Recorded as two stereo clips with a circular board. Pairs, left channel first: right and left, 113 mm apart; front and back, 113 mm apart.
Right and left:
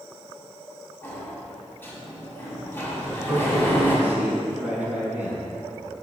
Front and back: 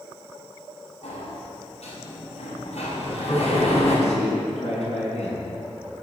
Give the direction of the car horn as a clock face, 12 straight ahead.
I don't hear a car horn.